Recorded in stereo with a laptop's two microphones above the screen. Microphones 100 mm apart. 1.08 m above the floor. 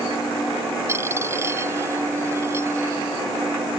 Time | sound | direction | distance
0.9 | a dropped coin | 25° right (ahead or behind) | ?